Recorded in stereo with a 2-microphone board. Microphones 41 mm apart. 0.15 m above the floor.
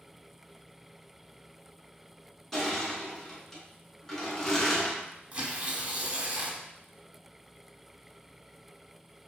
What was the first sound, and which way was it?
Crushing, 10° left (ahead or behind).